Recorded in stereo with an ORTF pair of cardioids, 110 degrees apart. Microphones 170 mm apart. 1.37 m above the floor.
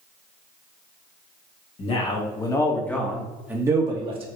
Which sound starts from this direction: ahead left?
A man speaking, at 1.8 s.